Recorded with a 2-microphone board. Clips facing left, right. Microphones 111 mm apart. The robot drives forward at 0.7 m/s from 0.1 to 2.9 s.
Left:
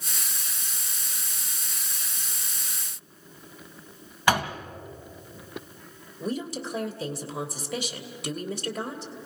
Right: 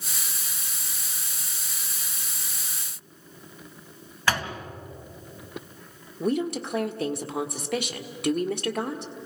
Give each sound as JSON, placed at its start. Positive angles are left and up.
{"t": 4.3, "sound": "a door slam", "side_deg": 15, "distance_m": 2.5}
{"t": 6.2, "sound": "a woman speaking", "side_deg": -60, "distance_m": 1.5}